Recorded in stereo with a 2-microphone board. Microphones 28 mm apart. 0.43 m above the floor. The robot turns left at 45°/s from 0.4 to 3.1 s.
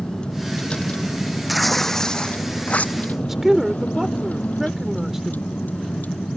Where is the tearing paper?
175° right; by 3.0 s 120° left.